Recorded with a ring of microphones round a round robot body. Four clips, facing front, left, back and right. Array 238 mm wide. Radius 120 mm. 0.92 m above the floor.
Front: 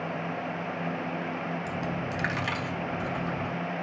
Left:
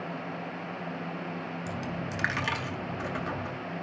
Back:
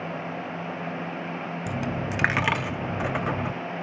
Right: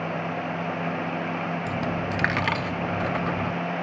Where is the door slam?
No door slam in this recording.